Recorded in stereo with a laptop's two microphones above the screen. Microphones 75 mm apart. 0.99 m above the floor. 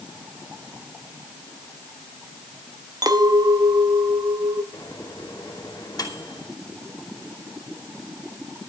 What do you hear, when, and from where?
3.0 s a clink: 60° right (ahead or behind), 1.3 m
4.7 s a microwave: 60° left (ahead or behind), 2.5 m